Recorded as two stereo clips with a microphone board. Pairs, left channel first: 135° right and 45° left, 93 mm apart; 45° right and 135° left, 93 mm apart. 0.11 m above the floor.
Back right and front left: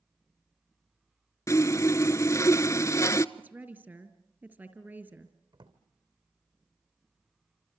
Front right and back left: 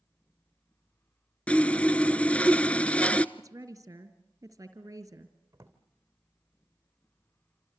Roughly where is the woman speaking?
Left.